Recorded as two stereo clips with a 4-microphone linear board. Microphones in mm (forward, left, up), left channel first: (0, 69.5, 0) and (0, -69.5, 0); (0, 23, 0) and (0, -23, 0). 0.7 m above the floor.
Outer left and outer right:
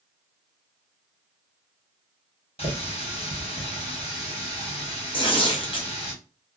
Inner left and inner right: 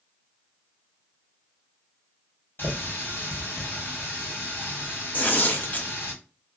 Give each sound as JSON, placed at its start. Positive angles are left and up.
{"t": 2.6, "sound": "a running tap", "side_deg": 45, "distance_m": 1.2}
{"t": 5.1, "sound": "tearing paper", "side_deg": 40, "distance_m": 0.7}